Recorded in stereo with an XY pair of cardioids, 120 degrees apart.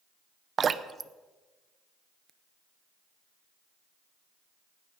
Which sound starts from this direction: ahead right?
Dripping, at 0.6 s.